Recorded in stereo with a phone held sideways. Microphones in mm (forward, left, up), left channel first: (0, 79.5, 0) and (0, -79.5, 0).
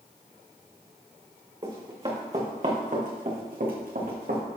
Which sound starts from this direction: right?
Running footsteps, at 1.6 s.